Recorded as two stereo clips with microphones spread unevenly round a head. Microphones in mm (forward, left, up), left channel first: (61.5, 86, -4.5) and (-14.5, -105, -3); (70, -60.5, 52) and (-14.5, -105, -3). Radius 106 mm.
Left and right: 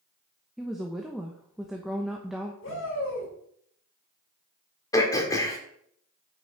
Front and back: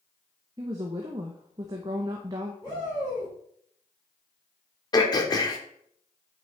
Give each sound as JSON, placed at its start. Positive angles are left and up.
{"t": 0.6, "sound": "a woman speaking", "azimuth_deg": 160, "distance_m": 0.8}
{"t": 2.6, "sound": "a shout", "azimuth_deg": 105, "distance_m": 4.5}
{"t": 4.9, "sound": "throat clearing", "azimuth_deg": -5, "distance_m": 1.7}